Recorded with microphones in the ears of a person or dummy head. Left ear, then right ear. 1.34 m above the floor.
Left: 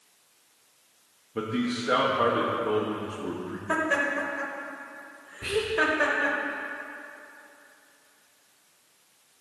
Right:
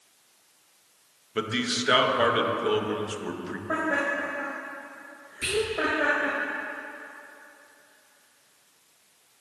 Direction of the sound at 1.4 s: 40° right (ahead or behind).